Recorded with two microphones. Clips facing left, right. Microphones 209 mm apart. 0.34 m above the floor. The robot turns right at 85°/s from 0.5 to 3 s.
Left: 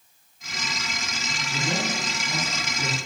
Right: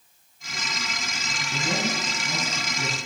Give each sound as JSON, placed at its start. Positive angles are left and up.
{"t": 1.5, "sound": "a man speaking", "azimuth_deg": 175, "distance_m": 5.0}